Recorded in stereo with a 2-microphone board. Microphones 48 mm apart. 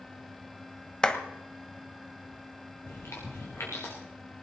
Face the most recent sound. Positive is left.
turn(degrees=65)  # may be behind; listen again after turning